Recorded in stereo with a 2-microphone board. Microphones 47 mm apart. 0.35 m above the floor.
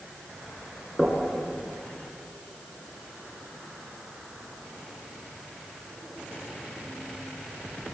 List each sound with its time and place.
1.0 s knocking: 5° left (ahead or behind), 4 m